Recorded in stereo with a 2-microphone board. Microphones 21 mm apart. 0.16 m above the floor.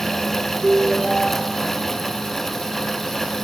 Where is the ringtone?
45° right (ahead or behind), 2 m.